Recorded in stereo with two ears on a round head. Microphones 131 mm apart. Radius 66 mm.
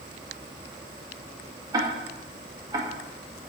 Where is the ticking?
25° right (ahead or behind), 1.7 m.